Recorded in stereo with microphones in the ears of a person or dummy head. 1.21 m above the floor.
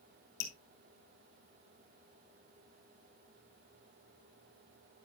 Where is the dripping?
50° left (ahead or behind), 1.2 m.